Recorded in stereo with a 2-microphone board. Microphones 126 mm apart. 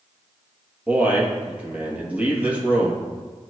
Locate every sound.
0.9 s a man speaking: 10° right (ahead or behind), 2.5 m